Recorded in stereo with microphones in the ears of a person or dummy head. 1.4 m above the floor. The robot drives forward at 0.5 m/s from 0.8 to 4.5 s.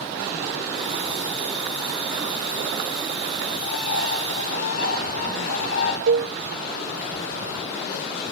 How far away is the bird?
About 4 m.